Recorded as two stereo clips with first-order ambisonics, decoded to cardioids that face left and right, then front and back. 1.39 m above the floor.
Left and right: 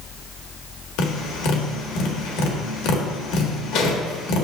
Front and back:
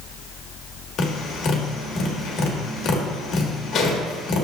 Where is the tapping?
65° left, 1.4 m.